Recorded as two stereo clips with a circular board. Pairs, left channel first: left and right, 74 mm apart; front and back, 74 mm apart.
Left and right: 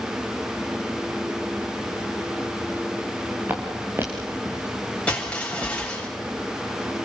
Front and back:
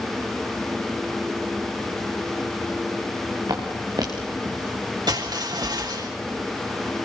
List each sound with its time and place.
3.5 s footsteps: 155° right, 5.5 m; by 5.8 s 140° right, 6 m
5.1 s crushing: 165° left, 7.5 m